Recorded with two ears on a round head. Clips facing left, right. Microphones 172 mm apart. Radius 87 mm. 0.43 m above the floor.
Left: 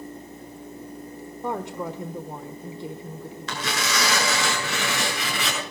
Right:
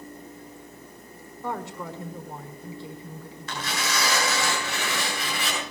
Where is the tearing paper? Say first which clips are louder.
Left 2 dB; 65° left (ahead or behind), 7 m.